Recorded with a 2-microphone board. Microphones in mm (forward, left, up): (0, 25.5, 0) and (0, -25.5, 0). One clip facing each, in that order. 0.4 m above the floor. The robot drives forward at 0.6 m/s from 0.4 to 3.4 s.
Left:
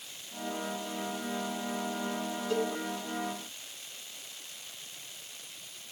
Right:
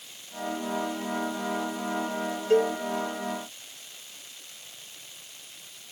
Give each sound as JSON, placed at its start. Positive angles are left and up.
{"t": 2.5, "sound": "a cowbell", "side_deg": -45, "distance_m": 2.0}